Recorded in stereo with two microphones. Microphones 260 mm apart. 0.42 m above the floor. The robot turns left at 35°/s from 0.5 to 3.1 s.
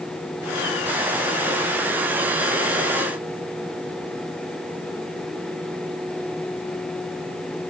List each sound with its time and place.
Only background noise.